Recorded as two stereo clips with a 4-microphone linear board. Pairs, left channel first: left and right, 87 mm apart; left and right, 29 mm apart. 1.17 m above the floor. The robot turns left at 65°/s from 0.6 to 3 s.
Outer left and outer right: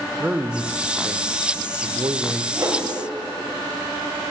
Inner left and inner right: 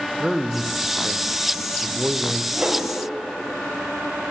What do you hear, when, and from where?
0.2 s a man speaking: 20° right, 0.6 m; by 2.4 s 140° right, 0.6 m
2.5 s a whoosh: 40° right (ahead or behind), 2 m; by 2.9 s 55° right (ahead or behind), 2 m